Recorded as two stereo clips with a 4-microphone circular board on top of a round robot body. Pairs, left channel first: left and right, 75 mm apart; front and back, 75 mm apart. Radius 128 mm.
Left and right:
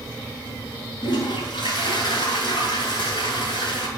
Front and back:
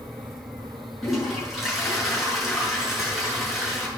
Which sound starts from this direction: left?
A toilet flushing, at 1.0 s.